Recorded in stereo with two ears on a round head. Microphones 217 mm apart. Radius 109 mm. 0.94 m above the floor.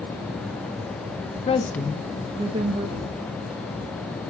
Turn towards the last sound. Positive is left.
turn(degrees=-35)  # may be behind; listen again after turning